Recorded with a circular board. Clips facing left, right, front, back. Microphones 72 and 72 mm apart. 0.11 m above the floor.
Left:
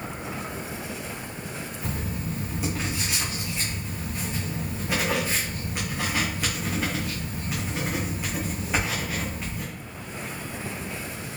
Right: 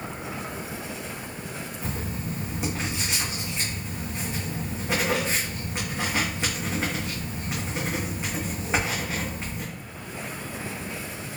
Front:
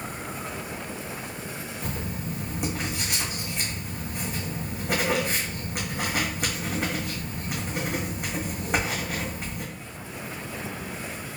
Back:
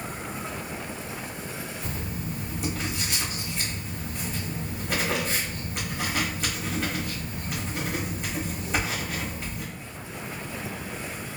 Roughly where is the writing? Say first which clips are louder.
Even, front 4 dB; ahead right.